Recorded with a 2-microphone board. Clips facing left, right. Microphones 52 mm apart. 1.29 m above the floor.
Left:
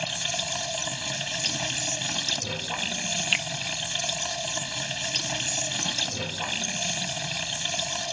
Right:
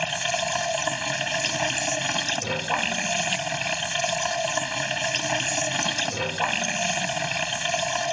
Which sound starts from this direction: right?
Running water, at 0.0 s.